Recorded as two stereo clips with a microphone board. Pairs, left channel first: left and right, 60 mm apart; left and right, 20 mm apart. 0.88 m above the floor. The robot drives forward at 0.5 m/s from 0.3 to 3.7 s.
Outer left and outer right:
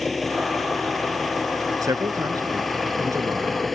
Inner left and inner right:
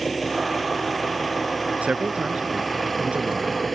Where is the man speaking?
65° right (ahead or behind).